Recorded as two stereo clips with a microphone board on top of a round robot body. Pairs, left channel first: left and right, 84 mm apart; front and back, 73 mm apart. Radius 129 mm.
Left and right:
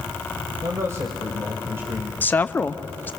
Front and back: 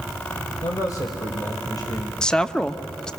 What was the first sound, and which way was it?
A man speaking, 35° right.